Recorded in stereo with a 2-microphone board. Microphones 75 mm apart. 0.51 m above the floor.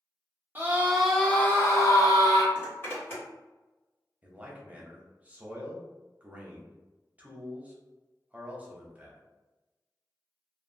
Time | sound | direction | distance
0.6 | a scream | 30° right (ahead or behind) | 0.7 m
2.5 | a zipper | 30° left (ahead or behind) | 1.6 m
4.2 | a man speaking | 20° right (ahead or behind) | 0.7 m